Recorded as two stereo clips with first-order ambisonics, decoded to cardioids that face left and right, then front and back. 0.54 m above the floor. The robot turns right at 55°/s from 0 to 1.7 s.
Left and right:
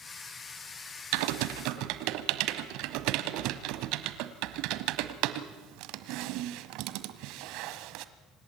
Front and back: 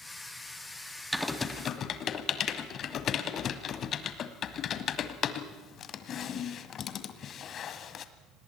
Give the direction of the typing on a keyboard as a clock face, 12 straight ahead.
3 o'clock.